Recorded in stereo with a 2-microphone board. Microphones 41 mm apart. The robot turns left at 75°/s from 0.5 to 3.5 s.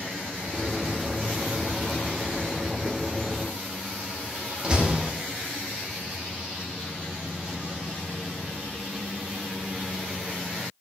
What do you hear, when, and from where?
4.6 s a door slam: 25° right (ahead or behind), 2.5 m